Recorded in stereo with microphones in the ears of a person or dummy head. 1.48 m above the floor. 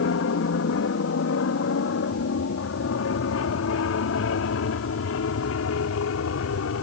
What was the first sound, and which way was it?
An aircraft, 60° left (ahead or behind).